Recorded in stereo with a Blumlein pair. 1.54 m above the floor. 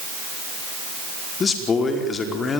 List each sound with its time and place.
1.4 s a man speaking: 20° left, 4.5 m